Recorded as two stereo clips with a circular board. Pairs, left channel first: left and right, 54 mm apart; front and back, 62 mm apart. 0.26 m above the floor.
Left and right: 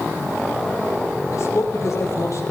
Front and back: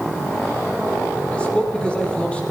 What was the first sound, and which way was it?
A man speaking, 75° left.